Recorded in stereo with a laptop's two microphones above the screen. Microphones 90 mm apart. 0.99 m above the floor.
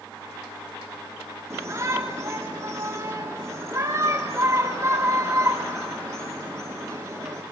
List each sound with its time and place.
1.5 s a shout: 35° right (ahead or behind), 2 m